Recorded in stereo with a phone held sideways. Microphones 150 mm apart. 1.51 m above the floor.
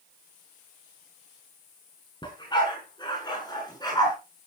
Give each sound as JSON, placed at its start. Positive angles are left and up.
{"t": 2.2, "sound": "a dog barking", "side_deg": 30, "distance_m": 6.0}